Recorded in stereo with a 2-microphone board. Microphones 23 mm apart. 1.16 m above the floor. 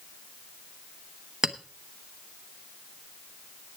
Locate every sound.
1.4 s a clink: 40° right (ahead or behind), 0.9 m